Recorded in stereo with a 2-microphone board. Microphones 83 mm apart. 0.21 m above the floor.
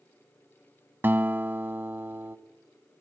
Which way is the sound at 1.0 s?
25° right (ahead or behind).